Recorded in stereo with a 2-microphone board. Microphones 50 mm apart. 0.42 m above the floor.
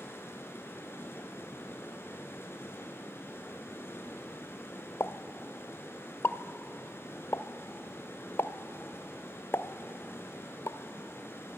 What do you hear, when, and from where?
0.0 s running water: 55° left (ahead or behind), 3 m
5.0 s a pop: 60° left (ahead or behind), 0.6 m